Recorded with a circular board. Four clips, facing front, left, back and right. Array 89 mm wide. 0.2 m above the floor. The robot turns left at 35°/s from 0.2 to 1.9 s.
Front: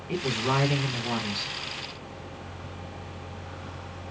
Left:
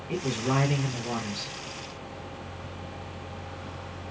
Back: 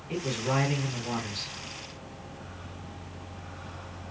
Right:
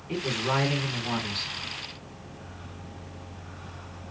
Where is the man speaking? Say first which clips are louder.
Even, front 2 dB; 10° right, 1.9 m; by 1.5 s 60° right, 1.9 m.